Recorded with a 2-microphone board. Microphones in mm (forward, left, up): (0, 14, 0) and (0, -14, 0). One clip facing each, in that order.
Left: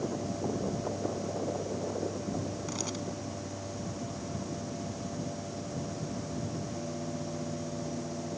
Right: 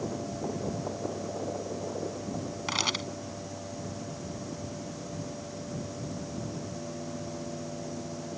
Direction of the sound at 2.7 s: 80° right.